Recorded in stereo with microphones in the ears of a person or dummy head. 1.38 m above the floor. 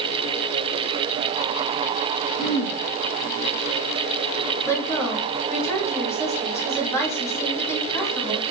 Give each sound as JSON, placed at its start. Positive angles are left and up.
{"t": 2.4, "sound": "throat clearing", "side_deg": 45, "distance_m": 1.8}
{"t": 4.7, "sound": "a woman speaking", "side_deg": 15, "distance_m": 3.0}